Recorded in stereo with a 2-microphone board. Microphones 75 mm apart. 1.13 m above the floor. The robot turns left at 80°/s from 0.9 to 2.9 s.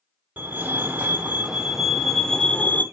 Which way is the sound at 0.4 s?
20° right (ahead or behind).